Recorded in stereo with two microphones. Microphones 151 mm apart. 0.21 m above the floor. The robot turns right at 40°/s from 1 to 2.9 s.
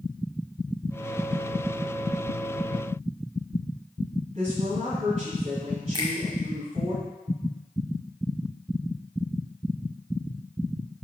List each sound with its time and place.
4.3 s a woman speaking: 40° right (ahead or behind), 1.7 m
5.9 s a finger snap: 30° right (ahead or behind), 1.4 m